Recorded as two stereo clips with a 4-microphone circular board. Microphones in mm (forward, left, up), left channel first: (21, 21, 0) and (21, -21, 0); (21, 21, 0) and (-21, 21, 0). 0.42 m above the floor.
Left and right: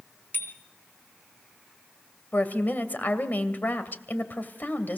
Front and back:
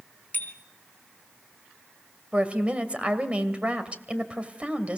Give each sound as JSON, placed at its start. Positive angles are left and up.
{"t": 0.3, "sound": "a bicycle bell", "azimuth_deg": 50, "distance_m": 3.0}
{"t": 2.3, "sound": "a woman speaking", "azimuth_deg": 125, "distance_m": 1.9}